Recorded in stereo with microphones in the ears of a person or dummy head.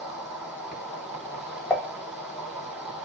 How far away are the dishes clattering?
About 1.2 m.